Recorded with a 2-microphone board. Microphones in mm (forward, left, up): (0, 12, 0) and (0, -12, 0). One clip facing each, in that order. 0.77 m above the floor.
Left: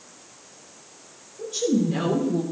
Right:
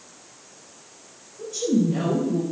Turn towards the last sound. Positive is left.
turn(degrees=55)  # may be behind; listen again after turning